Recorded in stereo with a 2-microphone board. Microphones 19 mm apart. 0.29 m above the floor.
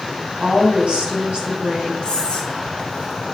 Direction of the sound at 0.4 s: 55° right (ahead or behind).